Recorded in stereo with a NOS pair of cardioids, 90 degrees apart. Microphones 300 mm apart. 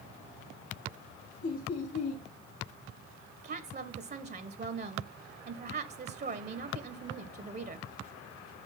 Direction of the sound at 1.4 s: 65° left.